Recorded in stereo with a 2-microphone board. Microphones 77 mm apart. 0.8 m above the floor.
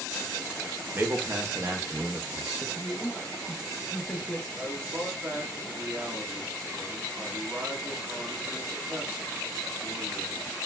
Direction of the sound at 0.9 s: 30° right (ahead or behind).